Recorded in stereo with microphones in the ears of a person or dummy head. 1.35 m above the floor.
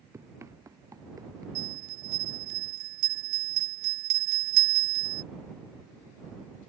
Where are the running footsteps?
10° right (ahead or behind); by 1.4 s 15° right (ahead or behind).